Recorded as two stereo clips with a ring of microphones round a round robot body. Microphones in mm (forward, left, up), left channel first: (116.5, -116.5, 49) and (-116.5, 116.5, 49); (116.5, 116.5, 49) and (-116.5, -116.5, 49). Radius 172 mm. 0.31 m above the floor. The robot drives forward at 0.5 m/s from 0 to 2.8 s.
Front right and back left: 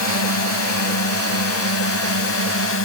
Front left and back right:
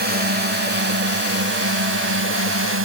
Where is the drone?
75° right; by 2.9 s 90° right.